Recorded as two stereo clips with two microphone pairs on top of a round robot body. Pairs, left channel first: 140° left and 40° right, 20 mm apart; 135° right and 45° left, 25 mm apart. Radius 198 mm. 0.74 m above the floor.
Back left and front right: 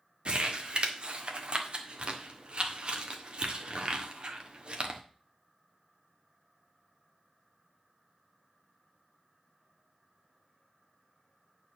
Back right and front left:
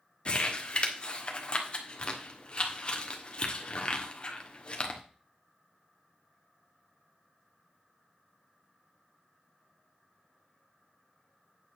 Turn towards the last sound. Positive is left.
turn(degrees=-80)